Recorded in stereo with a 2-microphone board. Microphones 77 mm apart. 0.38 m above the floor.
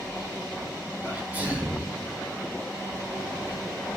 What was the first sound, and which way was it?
A sneeze, 20° right (ahead or behind).